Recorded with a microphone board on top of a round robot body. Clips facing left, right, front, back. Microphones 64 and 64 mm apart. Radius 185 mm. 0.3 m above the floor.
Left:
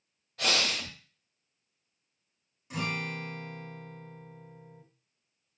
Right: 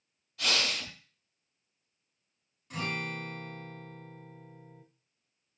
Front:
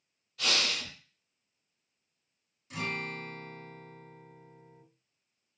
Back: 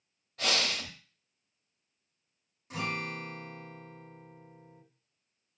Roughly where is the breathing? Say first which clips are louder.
Left 2 dB, back 1 dB; behind left.